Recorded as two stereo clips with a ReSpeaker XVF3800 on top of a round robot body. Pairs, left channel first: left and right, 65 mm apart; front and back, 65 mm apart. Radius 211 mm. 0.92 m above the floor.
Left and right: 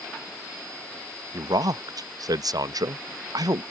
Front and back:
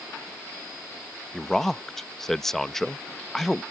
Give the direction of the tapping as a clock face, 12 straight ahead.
No tapping in this recording.